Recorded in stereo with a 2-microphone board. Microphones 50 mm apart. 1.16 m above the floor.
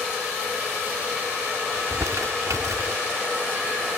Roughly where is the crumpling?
Right.